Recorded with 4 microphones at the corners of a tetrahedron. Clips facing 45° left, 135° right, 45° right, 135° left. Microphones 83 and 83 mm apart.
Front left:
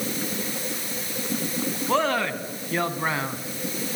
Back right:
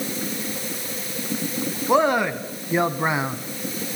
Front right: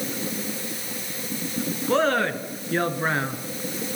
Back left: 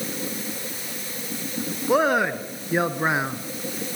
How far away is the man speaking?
About 1.1 m.